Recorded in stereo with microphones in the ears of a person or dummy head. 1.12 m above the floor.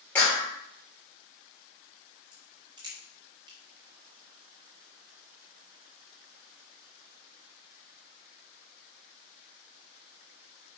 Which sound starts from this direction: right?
A crack, at 2.3 s.